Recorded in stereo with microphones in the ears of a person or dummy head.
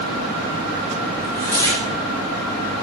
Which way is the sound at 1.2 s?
15° left (ahead or behind).